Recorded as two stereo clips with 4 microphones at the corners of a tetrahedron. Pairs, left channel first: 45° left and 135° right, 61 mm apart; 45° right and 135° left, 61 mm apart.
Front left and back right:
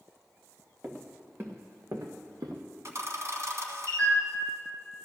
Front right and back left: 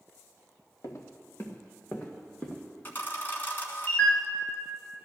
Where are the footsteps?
70° right, 1.8 m; by 2.6 s 125° right, 2 m.